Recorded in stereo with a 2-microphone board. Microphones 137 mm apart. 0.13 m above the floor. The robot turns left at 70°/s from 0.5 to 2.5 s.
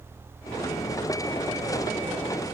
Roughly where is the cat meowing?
No cat meowing in this recording.